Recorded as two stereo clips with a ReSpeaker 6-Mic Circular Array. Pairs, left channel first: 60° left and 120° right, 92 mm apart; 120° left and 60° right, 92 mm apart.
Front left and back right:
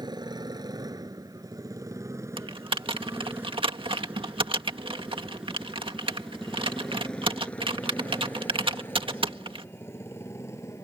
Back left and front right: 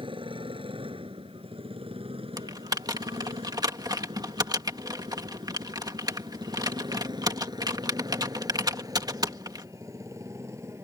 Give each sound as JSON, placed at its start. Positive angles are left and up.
{"t": 0.0, "sound": "a motorcycle", "azimuth_deg": -80}
{"t": 2.4, "sound": "typing on a keyboard", "azimuth_deg": -105}